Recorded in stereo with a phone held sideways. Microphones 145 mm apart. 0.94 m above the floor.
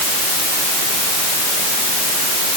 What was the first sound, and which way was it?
Only background noise.